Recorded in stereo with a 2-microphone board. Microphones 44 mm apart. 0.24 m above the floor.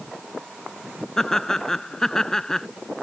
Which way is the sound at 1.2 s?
10° left (ahead or behind).